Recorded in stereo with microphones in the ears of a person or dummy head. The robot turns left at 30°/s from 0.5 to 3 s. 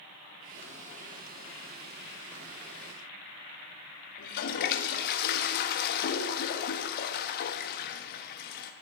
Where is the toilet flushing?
65° left (ahead or behind), 1.2 m.